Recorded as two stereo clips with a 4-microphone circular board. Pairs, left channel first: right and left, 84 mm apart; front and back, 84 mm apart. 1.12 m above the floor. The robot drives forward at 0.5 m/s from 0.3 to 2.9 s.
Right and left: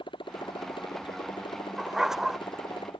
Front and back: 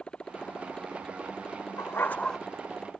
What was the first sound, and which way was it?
A motorcycle, 80° right.